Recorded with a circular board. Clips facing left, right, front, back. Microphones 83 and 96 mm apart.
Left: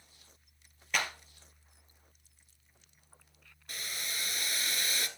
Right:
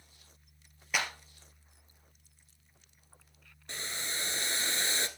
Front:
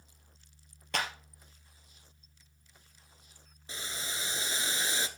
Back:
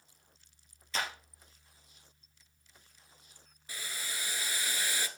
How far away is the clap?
About 2.5 m.